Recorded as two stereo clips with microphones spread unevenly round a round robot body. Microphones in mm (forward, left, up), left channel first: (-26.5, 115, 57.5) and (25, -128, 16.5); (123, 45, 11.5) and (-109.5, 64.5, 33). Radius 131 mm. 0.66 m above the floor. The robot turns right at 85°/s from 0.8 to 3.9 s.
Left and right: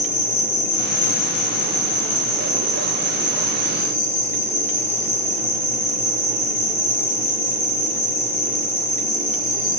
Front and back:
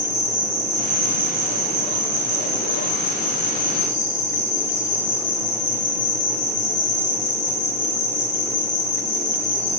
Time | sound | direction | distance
0.0 | an insect | 85° left | 2.5 m